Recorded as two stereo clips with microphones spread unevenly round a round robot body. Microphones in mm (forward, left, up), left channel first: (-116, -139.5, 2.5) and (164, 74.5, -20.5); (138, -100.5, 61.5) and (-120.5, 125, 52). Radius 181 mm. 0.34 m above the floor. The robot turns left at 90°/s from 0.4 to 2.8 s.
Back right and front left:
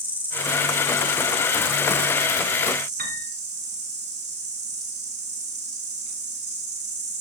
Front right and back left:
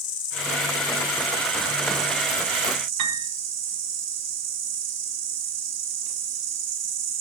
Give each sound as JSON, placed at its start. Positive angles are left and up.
{"t": 0.0, "sound": "an insect", "azimuth_deg": -45, "distance_m": 5.0}
{"t": 3.0, "sound": "a piano", "azimuth_deg": 100, "distance_m": 3.0}